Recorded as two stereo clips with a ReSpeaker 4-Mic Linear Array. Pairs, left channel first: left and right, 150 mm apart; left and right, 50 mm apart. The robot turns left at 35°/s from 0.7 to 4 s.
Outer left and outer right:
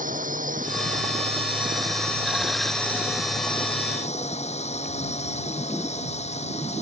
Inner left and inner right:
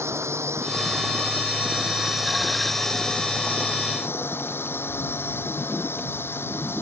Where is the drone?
115° right; by 6.8 s 130° left.